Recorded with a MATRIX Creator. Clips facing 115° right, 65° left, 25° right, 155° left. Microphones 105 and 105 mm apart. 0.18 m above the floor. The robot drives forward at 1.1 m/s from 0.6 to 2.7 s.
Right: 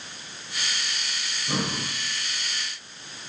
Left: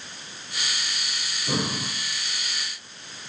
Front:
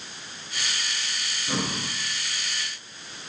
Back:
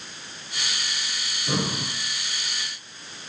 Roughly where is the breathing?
Left.